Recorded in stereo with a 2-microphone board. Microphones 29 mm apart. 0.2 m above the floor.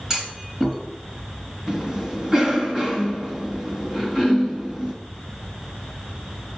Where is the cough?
20° right (ahead or behind), 1.9 m.